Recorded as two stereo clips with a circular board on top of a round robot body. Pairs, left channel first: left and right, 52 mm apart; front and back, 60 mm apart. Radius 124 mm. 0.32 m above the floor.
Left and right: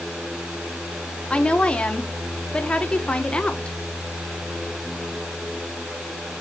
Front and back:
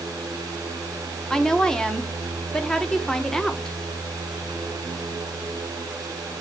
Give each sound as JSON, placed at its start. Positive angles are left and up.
{"t": 1.3, "sound": "a woman speaking", "azimuth_deg": 65, "distance_m": 0.9}